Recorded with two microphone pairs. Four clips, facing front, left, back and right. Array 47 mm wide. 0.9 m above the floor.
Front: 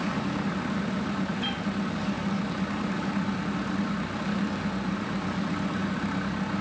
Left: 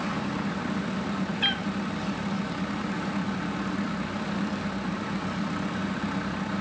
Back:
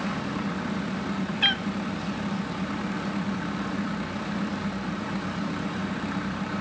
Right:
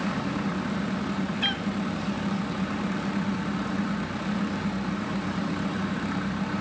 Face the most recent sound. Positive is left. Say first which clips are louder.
# left 3 dB, back 6 dB
turn(degrees=175)